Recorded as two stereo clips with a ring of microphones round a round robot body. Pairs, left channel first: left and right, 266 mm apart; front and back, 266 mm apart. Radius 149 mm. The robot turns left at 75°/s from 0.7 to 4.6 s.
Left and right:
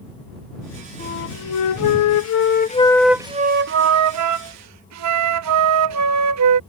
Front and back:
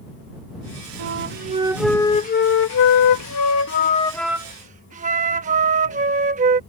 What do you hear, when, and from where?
1.0 s a flute: 155° left; by 6.6 s 115° right